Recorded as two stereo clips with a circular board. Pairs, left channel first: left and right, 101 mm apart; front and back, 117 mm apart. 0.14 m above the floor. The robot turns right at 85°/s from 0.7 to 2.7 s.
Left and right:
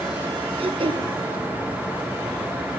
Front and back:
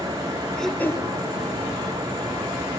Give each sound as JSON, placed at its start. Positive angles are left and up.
{"t": 0.6, "sound": "throat clearing", "azimuth_deg": -85, "distance_m": 1.1}